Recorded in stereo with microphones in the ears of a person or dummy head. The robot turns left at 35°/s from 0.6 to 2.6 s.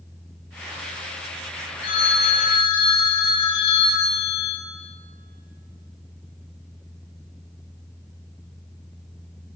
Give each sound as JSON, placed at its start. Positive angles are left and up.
{"t": 1.8, "sound": "a phone ringing", "side_deg": 30, "distance_m": 0.7}